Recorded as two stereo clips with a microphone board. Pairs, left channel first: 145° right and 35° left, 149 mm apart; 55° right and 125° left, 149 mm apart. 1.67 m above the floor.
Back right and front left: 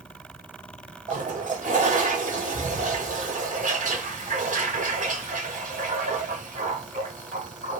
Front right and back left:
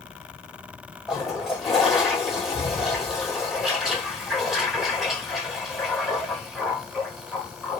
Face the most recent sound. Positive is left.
turn(degrees=35)